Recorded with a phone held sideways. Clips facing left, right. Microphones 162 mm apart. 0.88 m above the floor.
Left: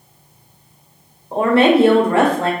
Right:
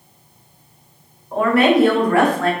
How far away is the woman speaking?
About 0.7 m.